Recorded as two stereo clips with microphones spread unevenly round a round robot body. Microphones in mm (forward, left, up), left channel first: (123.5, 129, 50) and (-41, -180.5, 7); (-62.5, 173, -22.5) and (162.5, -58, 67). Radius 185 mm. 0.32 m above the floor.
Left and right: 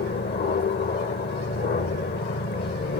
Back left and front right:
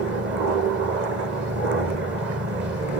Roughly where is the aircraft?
Ahead.